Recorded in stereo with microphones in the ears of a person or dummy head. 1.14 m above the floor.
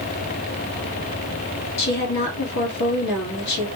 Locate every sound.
1.8 s a woman speaking: 55° left (ahead or behind), 1.7 m